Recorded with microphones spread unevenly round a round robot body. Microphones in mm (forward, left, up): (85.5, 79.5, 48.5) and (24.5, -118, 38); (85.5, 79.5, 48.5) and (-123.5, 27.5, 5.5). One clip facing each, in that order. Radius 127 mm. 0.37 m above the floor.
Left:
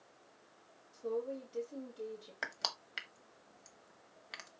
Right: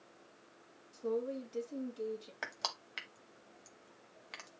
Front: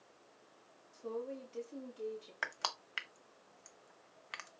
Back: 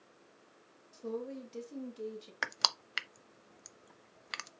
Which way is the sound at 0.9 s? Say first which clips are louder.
Right 2 dB, back 2 dB; 170° right.